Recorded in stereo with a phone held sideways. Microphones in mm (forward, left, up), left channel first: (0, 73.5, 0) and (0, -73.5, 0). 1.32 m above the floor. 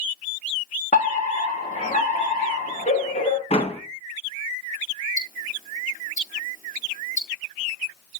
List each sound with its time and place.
0.9 s a fire alarm: 55° left (ahead or behind), 4 m
3.5 s a door slam: 45° left (ahead or behind), 1.2 m
5.2 s ticking: 65° left (ahead or behind), 6.5 m